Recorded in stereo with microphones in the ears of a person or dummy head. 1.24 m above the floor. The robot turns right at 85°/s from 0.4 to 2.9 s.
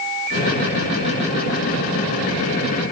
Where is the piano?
No piano in this recording.